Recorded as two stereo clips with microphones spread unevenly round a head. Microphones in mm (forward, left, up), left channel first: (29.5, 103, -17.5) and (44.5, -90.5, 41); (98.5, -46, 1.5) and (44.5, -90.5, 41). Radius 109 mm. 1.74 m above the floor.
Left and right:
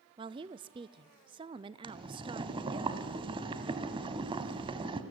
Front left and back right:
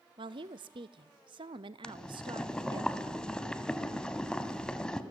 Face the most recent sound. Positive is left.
turn(degrees=-75)